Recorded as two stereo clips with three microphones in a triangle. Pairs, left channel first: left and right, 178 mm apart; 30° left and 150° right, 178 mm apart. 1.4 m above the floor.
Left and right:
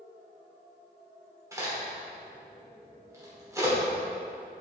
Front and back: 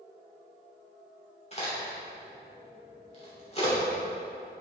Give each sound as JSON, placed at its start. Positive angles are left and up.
{"t": 1.5, "sound": "a crack", "azimuth_deg": -20, "distance_m": 2.5}